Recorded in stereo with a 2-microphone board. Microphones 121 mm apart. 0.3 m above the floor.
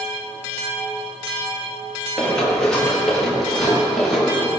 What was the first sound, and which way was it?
Running footsteps, 10° left (ahead or behind).